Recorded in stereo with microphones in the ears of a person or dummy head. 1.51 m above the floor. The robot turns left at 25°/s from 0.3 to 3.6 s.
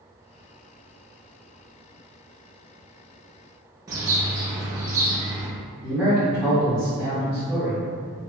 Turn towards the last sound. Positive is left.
turn(degrees=10)  # may be behind; listen again after turning